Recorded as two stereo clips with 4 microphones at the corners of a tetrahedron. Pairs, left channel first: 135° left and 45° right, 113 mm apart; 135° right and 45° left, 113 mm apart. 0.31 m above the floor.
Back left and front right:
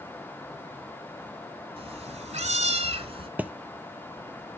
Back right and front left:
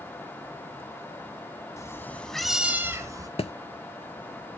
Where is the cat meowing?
75° right, 1.1 m; by 3.3 s 10° right, 1.2 m.